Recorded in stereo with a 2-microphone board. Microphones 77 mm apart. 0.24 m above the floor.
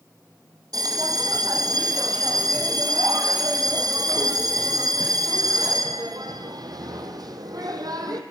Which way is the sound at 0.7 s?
55° right (ahead or behind).